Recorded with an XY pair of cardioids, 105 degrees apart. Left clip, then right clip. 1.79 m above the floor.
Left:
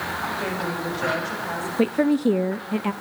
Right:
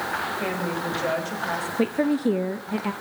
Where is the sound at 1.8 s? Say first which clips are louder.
Left 4 dB; 15° left, 0.7 m.